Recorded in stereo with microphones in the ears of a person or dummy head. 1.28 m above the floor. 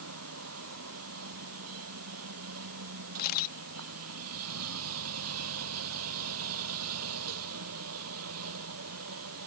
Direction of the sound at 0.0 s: 90° right.